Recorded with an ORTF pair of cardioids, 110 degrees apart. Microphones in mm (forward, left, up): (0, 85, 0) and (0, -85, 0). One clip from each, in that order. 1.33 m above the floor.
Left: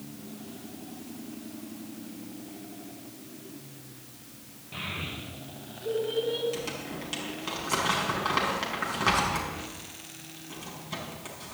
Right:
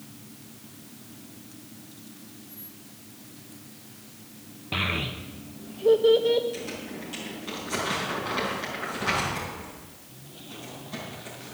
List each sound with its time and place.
4.7 s a child speaking: 70° right, 1.0 m
6.5 s crumpling: 50° left, 5 m